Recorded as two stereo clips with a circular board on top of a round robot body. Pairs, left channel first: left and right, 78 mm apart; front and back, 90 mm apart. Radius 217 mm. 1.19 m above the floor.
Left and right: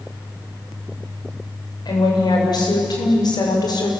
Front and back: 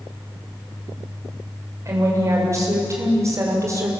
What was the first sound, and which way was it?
A woman speaking, 120° left.